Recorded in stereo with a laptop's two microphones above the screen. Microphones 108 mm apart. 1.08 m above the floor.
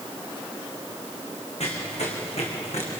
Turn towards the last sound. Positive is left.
turn(degrees=75)  # may be behind; listen again after turning